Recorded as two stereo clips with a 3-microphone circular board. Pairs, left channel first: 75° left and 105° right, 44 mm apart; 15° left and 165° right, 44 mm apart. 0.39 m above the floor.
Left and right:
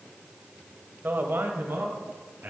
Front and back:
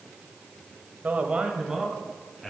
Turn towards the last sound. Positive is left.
turn(degrees=-80)